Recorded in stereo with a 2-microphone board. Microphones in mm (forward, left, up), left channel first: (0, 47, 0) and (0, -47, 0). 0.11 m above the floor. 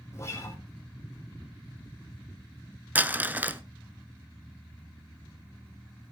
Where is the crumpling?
20° right (ahead or behind), 0.6 m.